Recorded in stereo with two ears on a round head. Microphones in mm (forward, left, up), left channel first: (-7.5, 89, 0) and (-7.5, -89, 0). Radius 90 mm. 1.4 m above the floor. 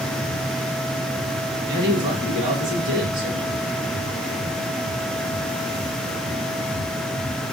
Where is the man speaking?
25° right (ahead or behind), 1.6 m.